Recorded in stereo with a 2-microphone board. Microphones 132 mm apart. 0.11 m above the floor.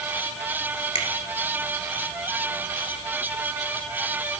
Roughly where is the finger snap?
Left.